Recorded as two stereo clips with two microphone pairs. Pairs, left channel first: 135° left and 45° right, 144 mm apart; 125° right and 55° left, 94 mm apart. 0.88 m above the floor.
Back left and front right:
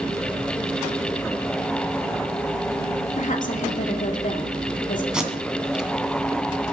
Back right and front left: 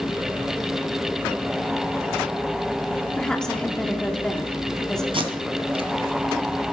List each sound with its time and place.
3.1 s a woman speaking: 155° left, 2 m
5.1 s tape being pulled: 40° left, 2.5 m